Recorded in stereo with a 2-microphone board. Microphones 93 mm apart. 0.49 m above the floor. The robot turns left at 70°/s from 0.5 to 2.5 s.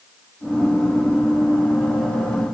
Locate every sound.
Only background noise.